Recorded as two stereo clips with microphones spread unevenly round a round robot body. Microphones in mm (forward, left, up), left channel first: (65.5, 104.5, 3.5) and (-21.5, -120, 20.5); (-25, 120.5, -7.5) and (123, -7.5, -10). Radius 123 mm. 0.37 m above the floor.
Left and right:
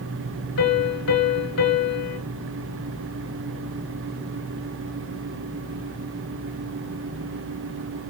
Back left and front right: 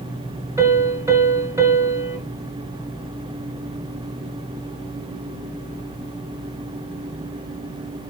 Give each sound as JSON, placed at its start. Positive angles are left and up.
{"t": 0.6, "sound": "a piano", "azimuth_deg": 35, "distance_m": 1.9}